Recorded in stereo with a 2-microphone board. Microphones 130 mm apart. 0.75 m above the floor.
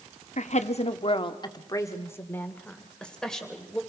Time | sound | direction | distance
0.4 | a woman speaking | 65° left (ahead or behind) | 1.2 m